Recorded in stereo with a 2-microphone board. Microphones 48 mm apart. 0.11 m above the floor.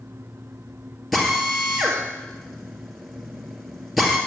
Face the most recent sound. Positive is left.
turn(degrees=0)  # may be behind; listen again after turning